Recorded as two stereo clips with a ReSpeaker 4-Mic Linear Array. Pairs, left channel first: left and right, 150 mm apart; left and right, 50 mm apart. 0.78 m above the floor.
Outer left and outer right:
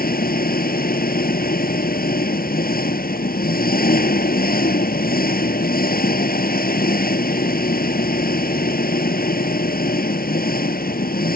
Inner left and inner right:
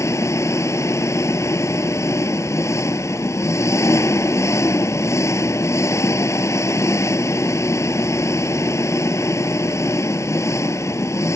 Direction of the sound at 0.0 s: 85° left.